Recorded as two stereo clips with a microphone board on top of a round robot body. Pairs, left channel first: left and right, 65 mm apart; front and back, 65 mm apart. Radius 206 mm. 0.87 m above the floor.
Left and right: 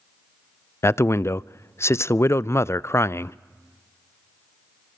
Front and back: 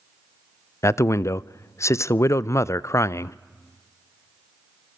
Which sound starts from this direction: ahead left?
A man speaking, at 0.8 s.